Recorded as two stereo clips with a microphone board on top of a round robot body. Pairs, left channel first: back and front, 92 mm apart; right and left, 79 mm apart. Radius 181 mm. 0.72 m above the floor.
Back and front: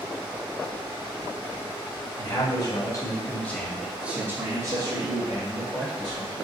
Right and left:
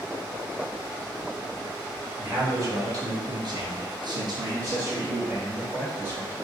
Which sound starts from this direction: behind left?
A man speaking, at 2.2 s.